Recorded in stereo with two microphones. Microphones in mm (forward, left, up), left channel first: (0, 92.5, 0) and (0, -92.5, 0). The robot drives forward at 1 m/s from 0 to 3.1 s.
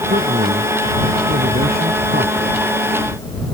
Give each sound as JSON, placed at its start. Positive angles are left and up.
{"t": 0.1, "sound": "a man speaking", "side_deg": -55}